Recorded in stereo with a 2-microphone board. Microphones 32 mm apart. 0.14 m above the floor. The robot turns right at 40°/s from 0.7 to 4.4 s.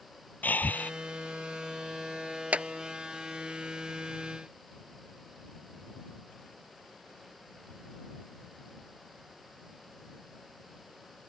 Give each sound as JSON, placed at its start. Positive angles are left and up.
{"t": 0.4, "sound": "breathing", "side_deg": 75}
{"t": 2.5, "sound": "a clap", "side_deg": -50}